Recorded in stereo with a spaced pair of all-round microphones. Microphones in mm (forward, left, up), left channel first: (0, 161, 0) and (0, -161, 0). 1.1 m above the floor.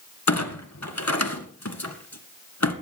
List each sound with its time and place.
0.3 s a clunk: 55° left (ahead or behind), 1.9 m